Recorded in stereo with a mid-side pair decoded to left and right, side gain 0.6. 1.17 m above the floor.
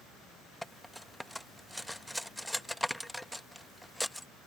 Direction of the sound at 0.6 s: Straight ahead.